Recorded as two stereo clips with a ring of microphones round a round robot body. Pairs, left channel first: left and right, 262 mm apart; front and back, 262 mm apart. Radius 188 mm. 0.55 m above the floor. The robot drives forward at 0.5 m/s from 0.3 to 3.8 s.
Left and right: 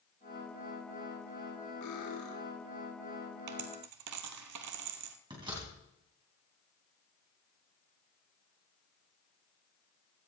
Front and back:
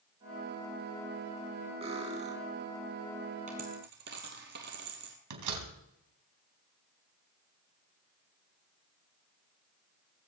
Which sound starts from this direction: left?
Cutlery clinking, at 1.8 s.